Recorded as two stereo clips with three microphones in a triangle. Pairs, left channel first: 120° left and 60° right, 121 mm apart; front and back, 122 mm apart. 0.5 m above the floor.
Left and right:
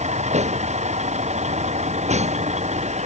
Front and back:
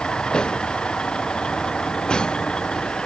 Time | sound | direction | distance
0.0 | a vehicle | 85° right | ?